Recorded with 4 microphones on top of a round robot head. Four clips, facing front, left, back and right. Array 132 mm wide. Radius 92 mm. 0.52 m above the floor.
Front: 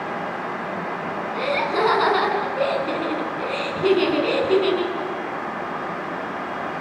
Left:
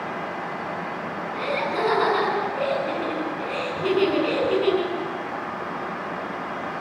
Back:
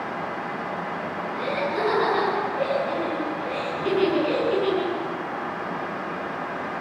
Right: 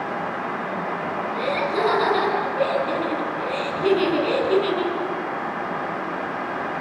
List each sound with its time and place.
1.3 s laughter: 10° right, 7 m